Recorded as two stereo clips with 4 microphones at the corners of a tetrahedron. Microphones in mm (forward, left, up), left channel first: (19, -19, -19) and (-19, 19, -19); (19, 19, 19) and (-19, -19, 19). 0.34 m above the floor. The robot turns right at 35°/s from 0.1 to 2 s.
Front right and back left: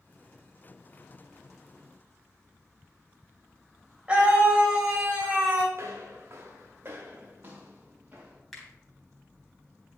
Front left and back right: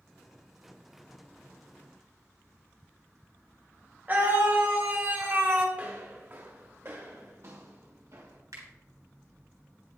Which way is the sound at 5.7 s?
165° left.